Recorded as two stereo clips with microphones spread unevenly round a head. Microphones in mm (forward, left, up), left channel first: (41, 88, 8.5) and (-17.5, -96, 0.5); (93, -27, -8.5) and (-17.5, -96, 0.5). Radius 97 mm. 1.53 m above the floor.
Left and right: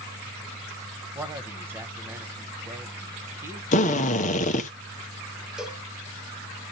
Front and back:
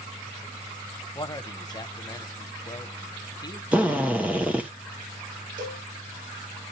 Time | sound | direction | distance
1.1 | a man speaking | 30° right | 1.0 m
3.7 | a drill | 130° left | 1.0 m
5.6 | a cowbell | 165° left | 0.8 m